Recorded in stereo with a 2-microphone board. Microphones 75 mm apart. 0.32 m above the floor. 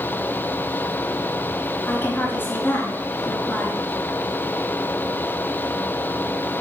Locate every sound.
1.9 s a woman speaking: 30° left (ahead or behind), 5 m